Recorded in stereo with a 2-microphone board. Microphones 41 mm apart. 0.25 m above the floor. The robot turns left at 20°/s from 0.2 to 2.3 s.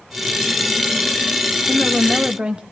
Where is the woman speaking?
25° right (ahead or behind), 1.0 m.